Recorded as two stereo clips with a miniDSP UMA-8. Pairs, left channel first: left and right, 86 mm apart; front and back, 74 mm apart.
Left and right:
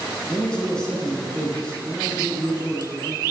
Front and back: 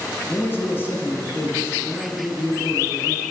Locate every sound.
0.3 s a man speaking: 20° left, 1.3 m